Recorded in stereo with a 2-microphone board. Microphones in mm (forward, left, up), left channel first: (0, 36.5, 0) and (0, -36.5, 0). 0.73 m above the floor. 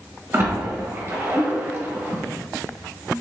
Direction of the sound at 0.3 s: 35° right (ahead or behind).